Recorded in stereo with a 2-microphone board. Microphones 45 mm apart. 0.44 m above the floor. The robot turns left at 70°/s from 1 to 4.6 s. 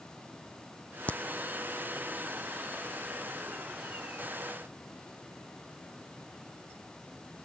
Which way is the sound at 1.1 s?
35° left (ahead or behind).